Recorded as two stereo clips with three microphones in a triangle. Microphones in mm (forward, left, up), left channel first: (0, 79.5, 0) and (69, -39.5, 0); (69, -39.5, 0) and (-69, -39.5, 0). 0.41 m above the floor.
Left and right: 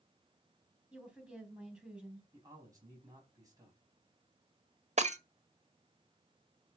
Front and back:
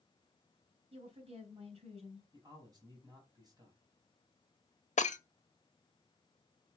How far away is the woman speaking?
About 3 m.